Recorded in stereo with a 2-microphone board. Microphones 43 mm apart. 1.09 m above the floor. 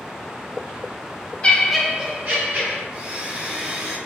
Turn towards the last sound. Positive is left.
turn(degrees=-25)  # may be behind; listen again after turning